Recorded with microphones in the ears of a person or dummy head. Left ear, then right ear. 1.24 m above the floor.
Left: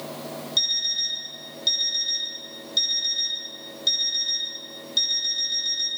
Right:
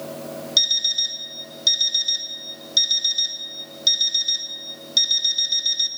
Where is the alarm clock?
35° right (ahead or behind), 1.6 m.